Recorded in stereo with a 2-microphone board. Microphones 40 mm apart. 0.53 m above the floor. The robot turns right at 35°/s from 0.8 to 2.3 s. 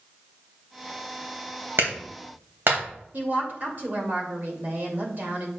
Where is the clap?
75° right (ahead or behind), 2.5 m; by 2.8 s 70° right (ahead or behind), 2.5 m.